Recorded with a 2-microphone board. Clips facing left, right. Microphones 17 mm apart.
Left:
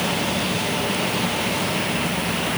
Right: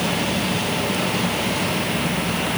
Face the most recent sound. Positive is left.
No sound to turn to.